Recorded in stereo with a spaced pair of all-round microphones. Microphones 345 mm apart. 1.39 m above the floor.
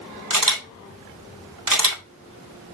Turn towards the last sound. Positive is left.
turn(degrees=-65)  # may be behind; listen again after turning